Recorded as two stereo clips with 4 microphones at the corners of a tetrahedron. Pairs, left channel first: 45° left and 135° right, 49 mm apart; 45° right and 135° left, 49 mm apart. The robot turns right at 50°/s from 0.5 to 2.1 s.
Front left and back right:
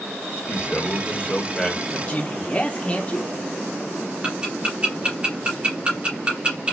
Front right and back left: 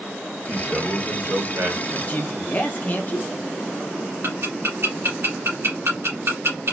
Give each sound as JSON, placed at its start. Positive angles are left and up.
{"t": 0.5, "sound": "a man speaking", "azimuth_deg": 65, "distance_m": 1.7}
{"t": 1.9, "sound": "a man speaking", "azimuth_deg": -15, "distance_m": 0.9}
{"t": 4.2, "sound": "ticking", "azimuth_deg": 160, "distance_m": 1.8}